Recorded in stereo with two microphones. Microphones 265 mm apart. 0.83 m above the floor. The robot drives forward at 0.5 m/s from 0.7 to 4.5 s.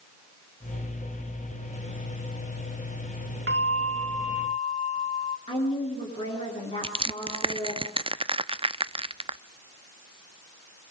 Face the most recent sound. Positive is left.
turn(degrees=-20)  # may be behind; listen again after turning